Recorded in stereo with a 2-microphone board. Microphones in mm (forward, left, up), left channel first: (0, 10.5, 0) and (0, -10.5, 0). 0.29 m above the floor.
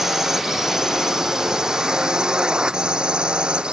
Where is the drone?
25° right (ahead or behind); by 3.7 s 55° right (ahead or behind).